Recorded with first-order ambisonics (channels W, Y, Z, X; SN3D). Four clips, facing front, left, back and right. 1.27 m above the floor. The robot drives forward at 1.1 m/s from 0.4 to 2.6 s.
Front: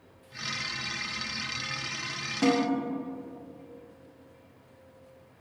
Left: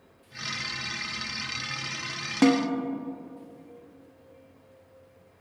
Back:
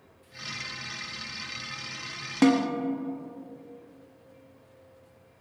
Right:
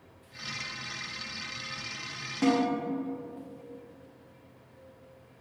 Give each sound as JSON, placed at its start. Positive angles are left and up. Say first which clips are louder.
{"t": 2.4, "sound": "a snare drum", "louder": "left 4 dB, back 3 dB", "azimuth_deg": 130, "distance_m": 1.1}